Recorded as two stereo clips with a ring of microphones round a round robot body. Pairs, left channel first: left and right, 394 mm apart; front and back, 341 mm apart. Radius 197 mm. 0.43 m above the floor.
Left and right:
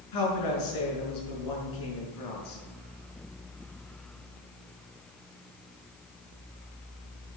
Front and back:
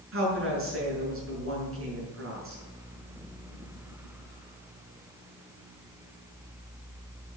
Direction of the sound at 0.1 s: 130° left.